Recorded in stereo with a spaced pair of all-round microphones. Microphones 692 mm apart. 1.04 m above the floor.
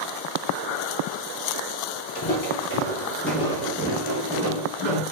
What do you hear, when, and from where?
2.1 s footsteps: 35° left (ahead or behind), 1.3 m; by 5.0 s 45° right (ahead or behind), 1.5 m